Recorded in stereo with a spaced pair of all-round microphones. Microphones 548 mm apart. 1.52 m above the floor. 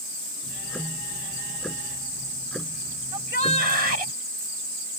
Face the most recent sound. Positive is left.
turn(degrees=-70)  # may be behind; listen again after turning